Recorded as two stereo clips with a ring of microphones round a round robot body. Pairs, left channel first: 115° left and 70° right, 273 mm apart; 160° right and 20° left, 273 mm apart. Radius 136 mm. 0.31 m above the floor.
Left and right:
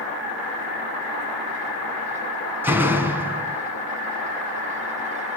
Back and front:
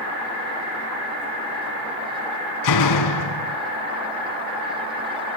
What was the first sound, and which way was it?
A door slam, 150° right.